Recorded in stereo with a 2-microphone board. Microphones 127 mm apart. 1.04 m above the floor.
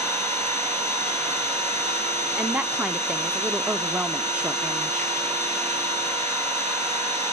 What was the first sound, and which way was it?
An engine running, 60° right (ahead or behind).